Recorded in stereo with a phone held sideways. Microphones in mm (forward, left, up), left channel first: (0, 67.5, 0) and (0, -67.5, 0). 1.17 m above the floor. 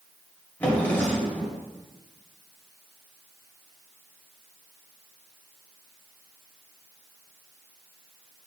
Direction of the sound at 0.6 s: 15° left (ahead or behind).